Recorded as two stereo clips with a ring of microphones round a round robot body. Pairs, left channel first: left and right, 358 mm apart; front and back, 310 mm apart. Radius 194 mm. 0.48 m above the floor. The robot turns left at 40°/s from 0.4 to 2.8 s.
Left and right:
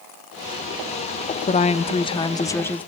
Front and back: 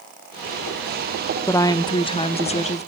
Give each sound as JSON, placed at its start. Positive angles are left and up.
{"t": 1.5, "sound": "a woman speaking", "azimuth_deg": 65, "distance_m": 0.7}